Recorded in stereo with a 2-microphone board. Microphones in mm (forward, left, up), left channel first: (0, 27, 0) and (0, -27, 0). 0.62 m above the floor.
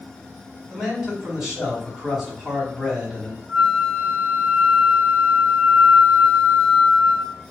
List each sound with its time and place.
0.7 s a man speaking: 10° right (ahead or behind), 1.8 m
3.5 s a flute: 35° right (ahead or behind), 1.3 m